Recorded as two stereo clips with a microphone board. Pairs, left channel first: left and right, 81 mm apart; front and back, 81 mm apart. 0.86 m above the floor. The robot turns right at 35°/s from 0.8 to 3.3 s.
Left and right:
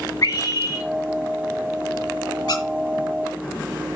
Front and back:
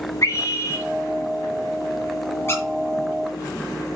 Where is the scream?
45° left, 4 m.